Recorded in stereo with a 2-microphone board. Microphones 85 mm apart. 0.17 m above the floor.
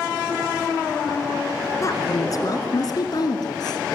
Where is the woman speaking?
40° left (ahead or behind), 2.5 m; by 4.0 s 55° left (ahead or behind), 3 m.